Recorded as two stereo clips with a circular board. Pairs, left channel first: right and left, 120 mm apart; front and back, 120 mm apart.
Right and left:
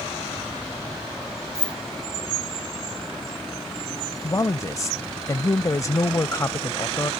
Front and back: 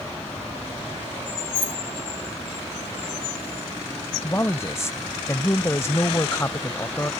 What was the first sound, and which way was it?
Keys jangling, 170° left.